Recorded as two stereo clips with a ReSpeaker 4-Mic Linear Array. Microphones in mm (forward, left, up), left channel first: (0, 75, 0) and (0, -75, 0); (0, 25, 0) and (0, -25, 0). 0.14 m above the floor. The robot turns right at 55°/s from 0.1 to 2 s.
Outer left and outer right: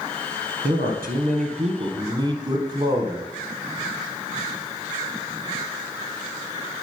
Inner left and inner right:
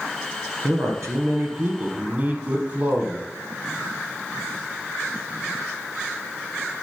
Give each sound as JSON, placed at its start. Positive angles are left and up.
{"t": 0.6, "sound": "a man speaking", "azimuth_deg": -105, "distance_m": 3.0}